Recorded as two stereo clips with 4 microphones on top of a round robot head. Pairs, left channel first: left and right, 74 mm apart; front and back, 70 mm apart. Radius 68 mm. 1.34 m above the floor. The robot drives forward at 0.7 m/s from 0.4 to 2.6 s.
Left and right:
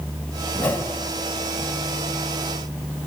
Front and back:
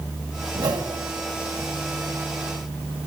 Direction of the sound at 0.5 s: 155° left.